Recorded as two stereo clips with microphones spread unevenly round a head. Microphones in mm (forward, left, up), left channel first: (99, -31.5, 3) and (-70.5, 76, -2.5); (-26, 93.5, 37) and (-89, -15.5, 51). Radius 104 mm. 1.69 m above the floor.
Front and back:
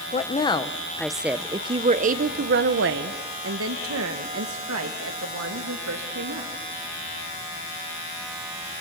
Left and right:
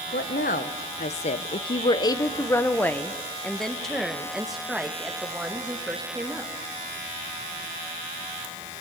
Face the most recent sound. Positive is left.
turn(degrees=160)